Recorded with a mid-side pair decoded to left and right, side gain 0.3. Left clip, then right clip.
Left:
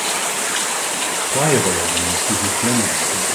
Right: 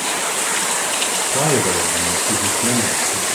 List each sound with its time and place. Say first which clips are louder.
1.3 s a man speaking: left 2 dB; 25° left, 2 m; by 3.4 s 35° left, 5 m